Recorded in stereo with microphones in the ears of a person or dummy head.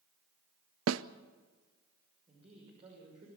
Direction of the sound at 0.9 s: 85° right.